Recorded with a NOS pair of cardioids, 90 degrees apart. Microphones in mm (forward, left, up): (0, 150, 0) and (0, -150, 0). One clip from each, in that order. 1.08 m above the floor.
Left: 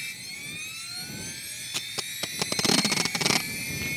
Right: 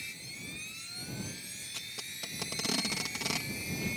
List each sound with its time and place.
0.0 s a machine running: 50° left
1.7 s tape being pulled: 55° left